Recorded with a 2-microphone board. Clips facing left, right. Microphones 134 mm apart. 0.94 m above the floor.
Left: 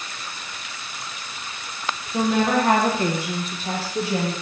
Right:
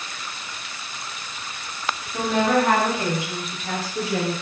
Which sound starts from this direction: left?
A woman speaking, at 2.1 s.